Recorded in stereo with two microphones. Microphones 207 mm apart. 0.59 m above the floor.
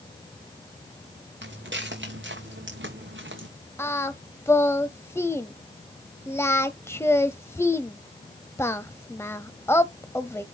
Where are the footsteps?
65° right (ahead or behind), 3.5 m; by 3.5 s 75° right (ahead or behind), 2.5 m.